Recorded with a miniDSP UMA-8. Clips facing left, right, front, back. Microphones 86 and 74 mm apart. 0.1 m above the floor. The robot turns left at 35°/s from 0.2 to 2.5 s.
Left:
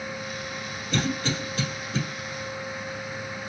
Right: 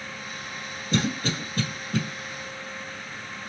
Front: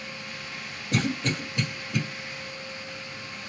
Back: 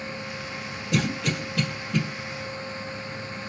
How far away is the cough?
About 3 m.